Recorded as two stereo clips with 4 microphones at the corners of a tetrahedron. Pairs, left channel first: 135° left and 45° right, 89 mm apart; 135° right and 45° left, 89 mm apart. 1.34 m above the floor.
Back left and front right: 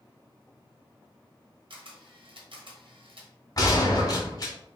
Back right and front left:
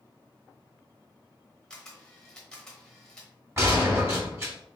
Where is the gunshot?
100° left, 1.7 m.